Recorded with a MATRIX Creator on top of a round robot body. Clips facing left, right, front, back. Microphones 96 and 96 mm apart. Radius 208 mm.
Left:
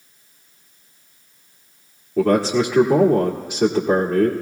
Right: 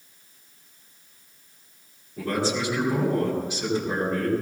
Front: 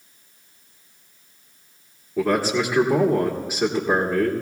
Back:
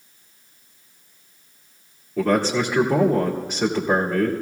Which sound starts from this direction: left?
A man speaking, at 2.2 s.